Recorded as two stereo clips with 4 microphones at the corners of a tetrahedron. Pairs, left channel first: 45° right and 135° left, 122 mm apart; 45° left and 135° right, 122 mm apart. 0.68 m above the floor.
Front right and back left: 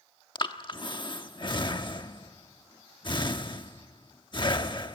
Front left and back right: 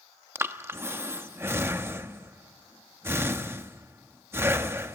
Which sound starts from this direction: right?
Breathing, at 0.3 s.